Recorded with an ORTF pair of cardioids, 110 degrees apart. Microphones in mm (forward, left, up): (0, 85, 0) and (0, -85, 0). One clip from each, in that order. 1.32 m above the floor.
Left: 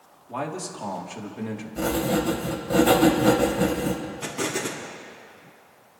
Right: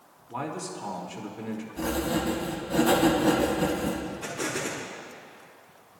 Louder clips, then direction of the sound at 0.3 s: Left 3 dB; 60° left.